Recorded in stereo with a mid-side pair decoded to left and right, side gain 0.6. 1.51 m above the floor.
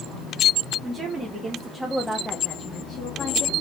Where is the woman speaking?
35° right, 1.1 m; by 3.5 s 75° left, 1.0 m.